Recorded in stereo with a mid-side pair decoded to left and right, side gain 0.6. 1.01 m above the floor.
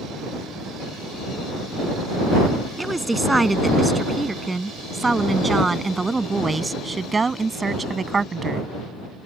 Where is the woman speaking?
10° right; by 8.7 s 25° right.